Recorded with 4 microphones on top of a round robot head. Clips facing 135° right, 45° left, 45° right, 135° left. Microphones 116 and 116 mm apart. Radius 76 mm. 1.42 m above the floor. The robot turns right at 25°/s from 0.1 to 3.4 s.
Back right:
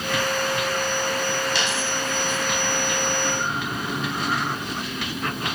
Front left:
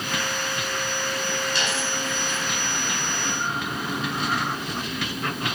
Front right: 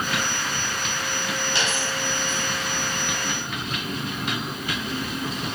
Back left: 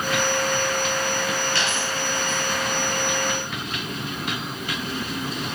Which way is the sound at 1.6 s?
115° right.